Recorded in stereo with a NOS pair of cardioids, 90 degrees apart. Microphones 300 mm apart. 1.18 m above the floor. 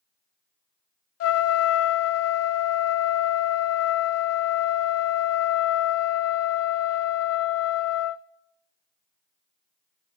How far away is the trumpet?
About 0.6 m.